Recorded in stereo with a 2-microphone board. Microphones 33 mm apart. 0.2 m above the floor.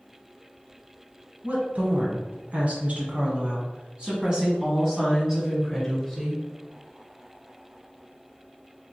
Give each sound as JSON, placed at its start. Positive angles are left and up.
{"t": 1.4, "sound": "a woman speaking", "side_deg": -50, "distance_m": 1.7}